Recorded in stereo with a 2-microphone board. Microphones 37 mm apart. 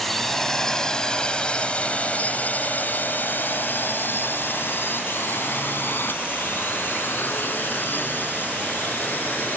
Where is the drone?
5° left (ahead or behind); by 9.6 s 55° left (ahead or behind).